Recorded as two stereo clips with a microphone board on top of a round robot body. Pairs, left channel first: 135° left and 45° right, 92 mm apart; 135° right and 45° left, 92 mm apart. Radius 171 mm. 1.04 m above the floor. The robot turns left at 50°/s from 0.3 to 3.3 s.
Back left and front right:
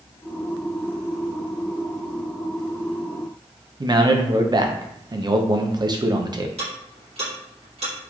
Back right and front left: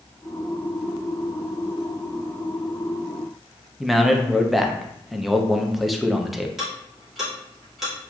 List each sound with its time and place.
3.8 s a man speaking: 45° right, 0.7 m
6.6 s ticking: 45° right, 2.0 m